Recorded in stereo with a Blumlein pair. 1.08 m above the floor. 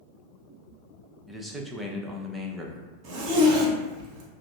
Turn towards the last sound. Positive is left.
turn(degrees=-35)